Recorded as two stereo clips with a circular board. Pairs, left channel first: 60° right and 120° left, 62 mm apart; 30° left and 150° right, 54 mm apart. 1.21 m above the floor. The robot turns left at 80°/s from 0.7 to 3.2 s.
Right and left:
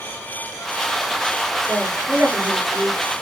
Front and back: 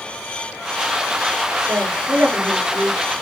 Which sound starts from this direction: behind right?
A woman speaking, at 1.7 s.